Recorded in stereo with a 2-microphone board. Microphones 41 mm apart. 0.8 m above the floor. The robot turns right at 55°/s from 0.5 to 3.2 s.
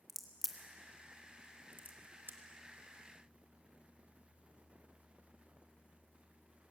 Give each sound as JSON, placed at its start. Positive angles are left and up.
{"t": 0.1, "sound": "a crack", "side_deg": 5, "distance_m": 1.4}